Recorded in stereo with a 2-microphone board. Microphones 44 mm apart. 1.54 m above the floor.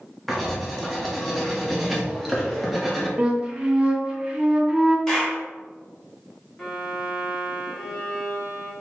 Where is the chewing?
No chewing in this recording.